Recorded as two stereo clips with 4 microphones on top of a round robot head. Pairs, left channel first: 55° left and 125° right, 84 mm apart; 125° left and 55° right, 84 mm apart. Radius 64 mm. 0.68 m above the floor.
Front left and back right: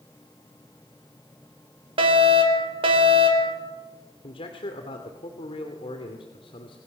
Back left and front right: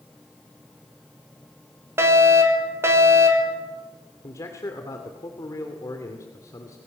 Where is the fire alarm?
115° right, 4.5 m.